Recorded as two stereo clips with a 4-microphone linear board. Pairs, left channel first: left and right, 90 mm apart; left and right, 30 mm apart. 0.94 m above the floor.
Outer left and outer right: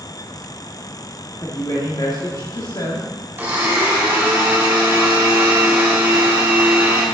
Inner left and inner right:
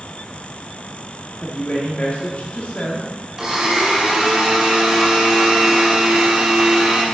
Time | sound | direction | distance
1.4 | a woman speaking | 50° left (ahead or behind) | 1.7 m
3.4 | a blender | 20° right (ahead or behind) | 4 m